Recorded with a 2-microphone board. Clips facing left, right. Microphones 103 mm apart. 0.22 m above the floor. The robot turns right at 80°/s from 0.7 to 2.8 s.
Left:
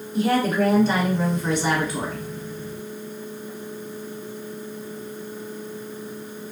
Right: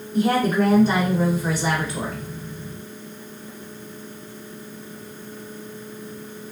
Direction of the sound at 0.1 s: 35° right.